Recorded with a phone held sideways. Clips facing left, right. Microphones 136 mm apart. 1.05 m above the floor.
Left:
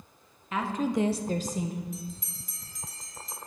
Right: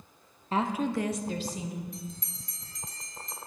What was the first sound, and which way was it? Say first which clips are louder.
A woman speaking: even; 35° right (ahead or behind).